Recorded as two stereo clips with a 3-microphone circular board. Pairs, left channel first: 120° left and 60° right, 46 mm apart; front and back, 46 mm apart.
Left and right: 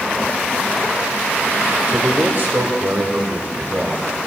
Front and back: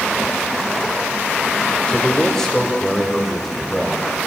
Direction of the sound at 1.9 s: 55° right.